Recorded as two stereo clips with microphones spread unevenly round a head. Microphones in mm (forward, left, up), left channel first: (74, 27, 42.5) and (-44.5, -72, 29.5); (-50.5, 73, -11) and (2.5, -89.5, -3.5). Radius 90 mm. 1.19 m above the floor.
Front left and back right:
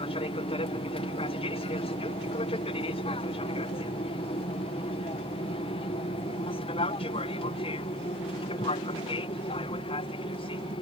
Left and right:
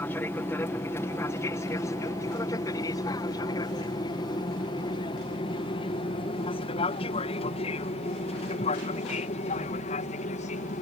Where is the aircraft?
40° left; by 10.8 s 85° left.